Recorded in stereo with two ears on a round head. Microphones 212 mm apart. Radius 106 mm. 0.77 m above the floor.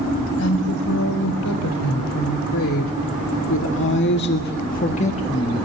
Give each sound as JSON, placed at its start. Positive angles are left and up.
{"t": 0.4, "sound": "a woman speaking", "side_deg": 80, "distance_m": 4.5}